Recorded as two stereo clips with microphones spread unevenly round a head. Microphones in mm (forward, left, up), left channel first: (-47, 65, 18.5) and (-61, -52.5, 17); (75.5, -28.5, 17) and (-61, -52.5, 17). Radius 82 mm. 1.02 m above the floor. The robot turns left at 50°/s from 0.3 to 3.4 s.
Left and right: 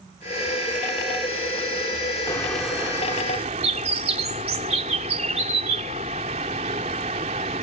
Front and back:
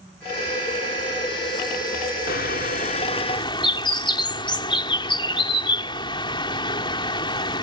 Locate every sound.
2.3 s a bird: 10° left; by 7.6 s 45° right